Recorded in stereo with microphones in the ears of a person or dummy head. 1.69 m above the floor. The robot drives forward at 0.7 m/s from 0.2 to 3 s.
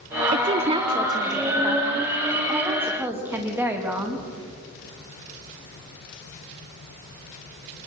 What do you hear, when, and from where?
0.3 s a woman speaking: 30° right (ahead or behind), 0.7 m; by 4.2 s 10° right (ahead or behind), 2.5 m